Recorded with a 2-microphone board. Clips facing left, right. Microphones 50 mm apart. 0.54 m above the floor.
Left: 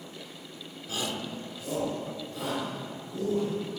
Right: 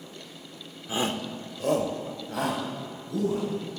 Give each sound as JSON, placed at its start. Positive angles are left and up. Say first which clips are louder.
{"t": 0.9, "sound": "a shout", "louder": "right 5 dB", "side_deg": -25, "distance_m": 1.0}